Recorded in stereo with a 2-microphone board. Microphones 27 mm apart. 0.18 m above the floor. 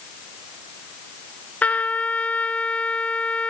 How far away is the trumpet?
About 0.9 m.